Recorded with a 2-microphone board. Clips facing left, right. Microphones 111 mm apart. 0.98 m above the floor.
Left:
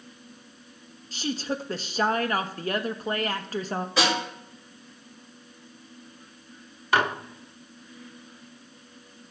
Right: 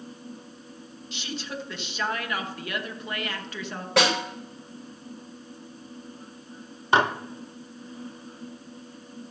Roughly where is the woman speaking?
Left.